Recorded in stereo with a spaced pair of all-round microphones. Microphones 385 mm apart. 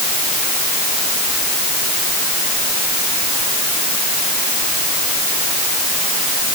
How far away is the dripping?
I don't hear dripping.